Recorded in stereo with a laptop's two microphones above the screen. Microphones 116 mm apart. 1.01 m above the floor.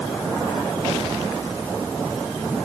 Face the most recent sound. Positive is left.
No sound to turn to.